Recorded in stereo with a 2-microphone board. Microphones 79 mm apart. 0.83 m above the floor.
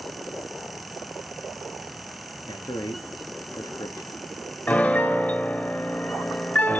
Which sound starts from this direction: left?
A man speaking, at 2.5 s.